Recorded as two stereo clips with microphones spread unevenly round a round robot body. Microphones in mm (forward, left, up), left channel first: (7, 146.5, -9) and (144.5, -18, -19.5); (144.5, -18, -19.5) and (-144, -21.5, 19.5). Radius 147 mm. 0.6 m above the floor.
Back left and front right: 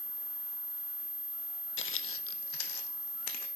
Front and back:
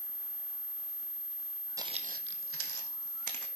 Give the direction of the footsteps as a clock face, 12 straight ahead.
8 o'clock.